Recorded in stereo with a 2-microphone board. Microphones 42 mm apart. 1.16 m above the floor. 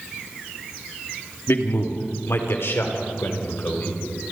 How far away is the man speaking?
About 2.5 m.